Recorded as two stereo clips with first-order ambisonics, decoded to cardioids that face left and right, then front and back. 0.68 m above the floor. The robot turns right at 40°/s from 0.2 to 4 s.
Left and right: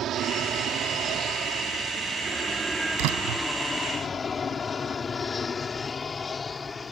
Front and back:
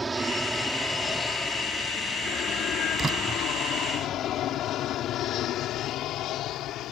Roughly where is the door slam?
Right.